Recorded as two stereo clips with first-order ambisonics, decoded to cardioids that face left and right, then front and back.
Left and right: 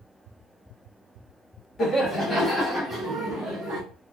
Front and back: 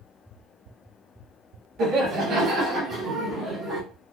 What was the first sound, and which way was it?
Laughter, 155° left.